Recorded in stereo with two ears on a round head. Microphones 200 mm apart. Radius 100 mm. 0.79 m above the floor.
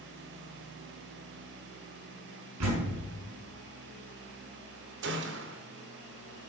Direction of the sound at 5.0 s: 55° right (ahead or behind).